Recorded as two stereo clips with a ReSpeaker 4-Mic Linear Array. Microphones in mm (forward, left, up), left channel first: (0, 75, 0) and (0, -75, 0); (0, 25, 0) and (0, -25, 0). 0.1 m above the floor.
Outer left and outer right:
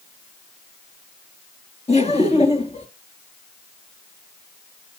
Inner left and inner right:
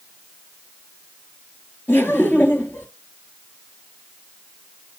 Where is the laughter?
45° left (ahead or behind), 1.7 m.